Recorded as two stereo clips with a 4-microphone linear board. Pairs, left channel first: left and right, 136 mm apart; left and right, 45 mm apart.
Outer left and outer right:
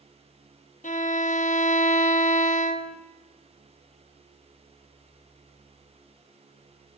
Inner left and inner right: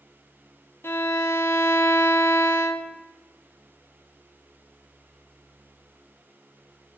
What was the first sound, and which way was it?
A violin, 65° left (ahead or behind).